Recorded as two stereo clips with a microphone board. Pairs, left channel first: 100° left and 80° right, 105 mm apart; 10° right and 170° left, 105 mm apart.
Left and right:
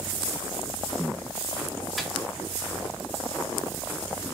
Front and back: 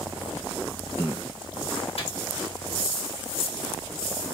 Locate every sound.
2.0 s a microwave: 10° left, 1.6 m